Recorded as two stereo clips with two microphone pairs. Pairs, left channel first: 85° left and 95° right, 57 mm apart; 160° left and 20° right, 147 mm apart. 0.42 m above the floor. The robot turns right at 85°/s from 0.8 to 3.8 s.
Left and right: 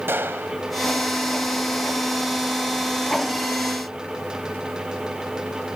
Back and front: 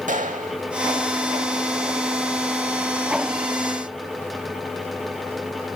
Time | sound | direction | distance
0.1 | a gunshot | 45° right | 0.8 m